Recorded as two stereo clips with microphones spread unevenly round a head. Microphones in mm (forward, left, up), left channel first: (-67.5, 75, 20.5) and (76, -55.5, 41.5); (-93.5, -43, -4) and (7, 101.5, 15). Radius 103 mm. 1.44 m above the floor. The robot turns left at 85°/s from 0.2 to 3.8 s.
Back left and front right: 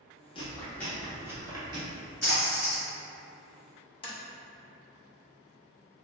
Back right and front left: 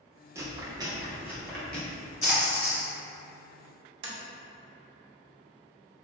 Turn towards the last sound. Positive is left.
turn(degrees=70)